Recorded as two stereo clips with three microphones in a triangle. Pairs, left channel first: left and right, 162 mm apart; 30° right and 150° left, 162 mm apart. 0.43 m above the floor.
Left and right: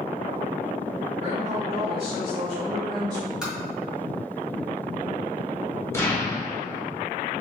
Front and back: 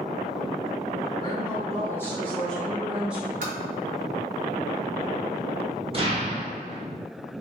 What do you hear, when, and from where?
1.2 s a woman speaking: 75° right, 1.7 m; by 3.3 s 135° right, 1.7 m
3.4 s tapping: 175° right, 1.7 m
5.9 s an explosion: 150° left, 1.2 m